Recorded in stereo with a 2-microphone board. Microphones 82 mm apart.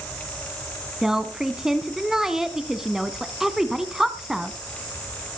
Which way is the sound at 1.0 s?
5° right (ahead or behind).